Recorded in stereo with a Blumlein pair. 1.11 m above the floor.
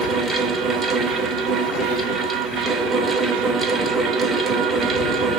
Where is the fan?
15° right, 0.7 m.